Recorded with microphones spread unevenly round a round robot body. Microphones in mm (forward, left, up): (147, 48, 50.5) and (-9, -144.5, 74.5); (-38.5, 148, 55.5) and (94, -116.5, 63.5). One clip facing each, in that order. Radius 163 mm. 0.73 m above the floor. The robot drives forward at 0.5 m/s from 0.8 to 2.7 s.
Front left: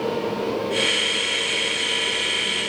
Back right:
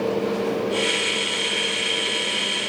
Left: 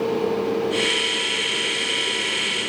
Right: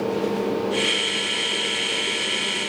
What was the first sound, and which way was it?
Only background noise.